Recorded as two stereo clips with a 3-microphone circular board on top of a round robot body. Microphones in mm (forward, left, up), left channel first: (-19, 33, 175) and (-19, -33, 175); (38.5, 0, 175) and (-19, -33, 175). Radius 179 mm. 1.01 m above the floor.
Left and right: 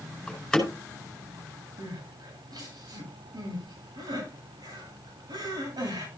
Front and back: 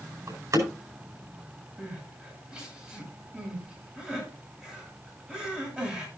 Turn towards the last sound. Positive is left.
turn(degrees=-75)